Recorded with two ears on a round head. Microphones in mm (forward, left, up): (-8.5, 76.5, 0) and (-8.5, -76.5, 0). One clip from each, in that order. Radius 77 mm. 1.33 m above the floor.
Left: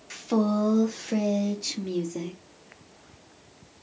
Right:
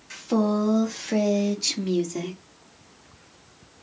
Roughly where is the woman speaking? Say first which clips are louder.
Right 2 dB; centre.